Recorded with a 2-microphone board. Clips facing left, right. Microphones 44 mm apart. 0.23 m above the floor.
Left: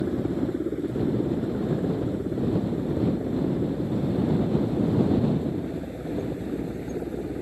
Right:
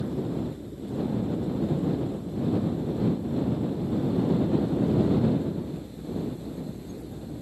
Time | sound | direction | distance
0.0 | a helicopter | 65° left (ahead or behind) | ?